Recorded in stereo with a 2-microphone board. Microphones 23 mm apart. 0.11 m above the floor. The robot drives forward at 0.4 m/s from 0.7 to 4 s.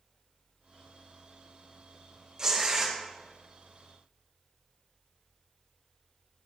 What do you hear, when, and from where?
2.4 s tearing paper: 25° right (ahead or behind), 1.9 m